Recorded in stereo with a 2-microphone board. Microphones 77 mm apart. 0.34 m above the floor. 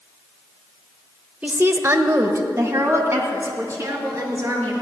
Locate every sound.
1.4 s a woman speaking: 20° right (ahead or behind), 0.8 m; by 4.7 s 35° right (ahead or behind), 4.5 m